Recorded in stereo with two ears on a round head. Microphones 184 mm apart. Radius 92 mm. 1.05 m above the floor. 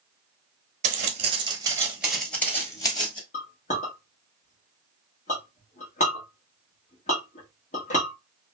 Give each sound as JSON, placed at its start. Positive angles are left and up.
{"t": 0.8, "sound": "footsteps", "side_deg": -40, "distance_m": 1.3}
{"t": 3.3, "sound": "a clink", "side_deg": 35, "distance_m": 1.1}